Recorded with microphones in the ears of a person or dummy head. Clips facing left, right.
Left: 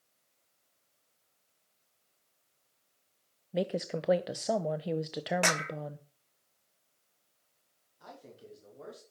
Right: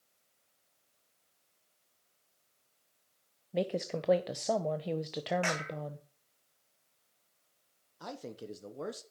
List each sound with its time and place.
3.5 s a woman speaking: 10° left (ahead or behind), 0.5 m
5.4 s a clap: 65° left (ahead or behind), 0.9 m
8.0 s a man speaking: 70° right (ahead or behind), 1.1 m